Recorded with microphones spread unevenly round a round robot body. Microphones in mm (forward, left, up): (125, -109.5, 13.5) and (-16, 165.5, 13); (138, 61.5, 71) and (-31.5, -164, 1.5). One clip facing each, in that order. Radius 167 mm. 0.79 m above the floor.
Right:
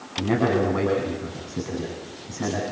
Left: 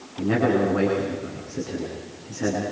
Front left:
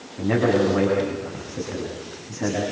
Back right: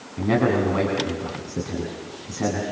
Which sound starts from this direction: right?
A man speaking, at 0.2 s.